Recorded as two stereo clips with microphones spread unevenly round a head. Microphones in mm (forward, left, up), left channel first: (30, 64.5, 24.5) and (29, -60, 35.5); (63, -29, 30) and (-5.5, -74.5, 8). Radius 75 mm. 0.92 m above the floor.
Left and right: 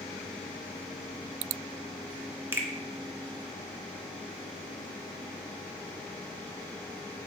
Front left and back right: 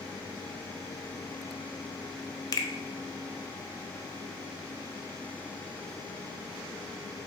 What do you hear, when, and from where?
2.5 s a finger snap: 15° right, 0.5 m